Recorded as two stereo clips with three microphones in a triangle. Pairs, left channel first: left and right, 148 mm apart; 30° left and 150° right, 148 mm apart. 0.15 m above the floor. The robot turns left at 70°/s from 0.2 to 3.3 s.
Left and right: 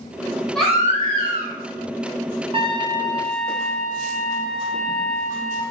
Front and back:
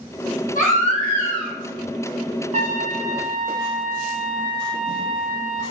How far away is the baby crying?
About 2 m.